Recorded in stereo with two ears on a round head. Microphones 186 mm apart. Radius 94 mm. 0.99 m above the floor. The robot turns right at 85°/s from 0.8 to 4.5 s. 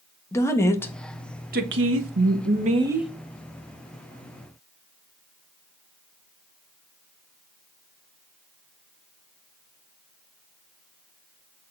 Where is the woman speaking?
165° left, 1.3 m; by 3.1 s straight ahead, 1.3 m.